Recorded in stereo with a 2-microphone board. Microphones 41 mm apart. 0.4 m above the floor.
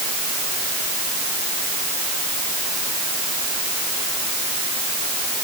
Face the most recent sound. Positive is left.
No sound to turn to.